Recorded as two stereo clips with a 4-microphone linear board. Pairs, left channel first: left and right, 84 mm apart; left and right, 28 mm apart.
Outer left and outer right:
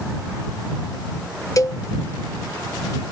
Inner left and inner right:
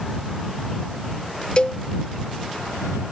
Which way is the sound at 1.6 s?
40° left (ahead or behind).